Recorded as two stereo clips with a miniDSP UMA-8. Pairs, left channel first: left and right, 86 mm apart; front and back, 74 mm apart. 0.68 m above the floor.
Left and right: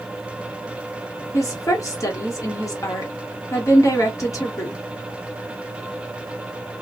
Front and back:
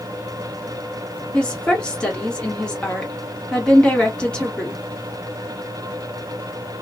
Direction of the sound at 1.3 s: 70° left.